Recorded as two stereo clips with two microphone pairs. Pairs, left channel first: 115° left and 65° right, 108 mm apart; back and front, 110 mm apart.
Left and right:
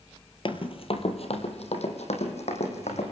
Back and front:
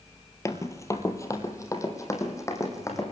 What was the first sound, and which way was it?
Running footsteps, 125° left.